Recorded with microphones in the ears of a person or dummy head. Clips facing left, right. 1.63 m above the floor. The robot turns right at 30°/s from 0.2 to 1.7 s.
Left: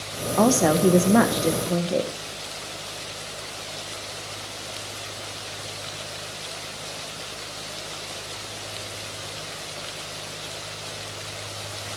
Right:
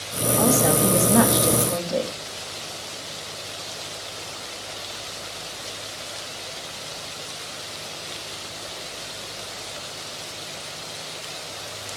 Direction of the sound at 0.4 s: 105° left.